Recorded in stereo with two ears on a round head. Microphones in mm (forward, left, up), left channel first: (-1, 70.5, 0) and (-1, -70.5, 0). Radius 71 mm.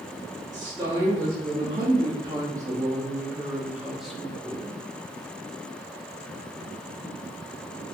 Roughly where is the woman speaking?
Right.